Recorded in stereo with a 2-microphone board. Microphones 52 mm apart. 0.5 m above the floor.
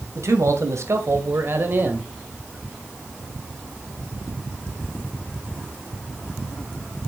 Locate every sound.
0.1 s a man speaking: 70° right (ahead or behind), 2.5 m; by 2.1 s 35° right (ahead or behind), 2 m